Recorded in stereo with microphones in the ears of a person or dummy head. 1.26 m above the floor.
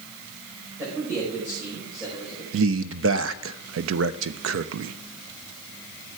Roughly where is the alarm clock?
I don't hear an alarm clock.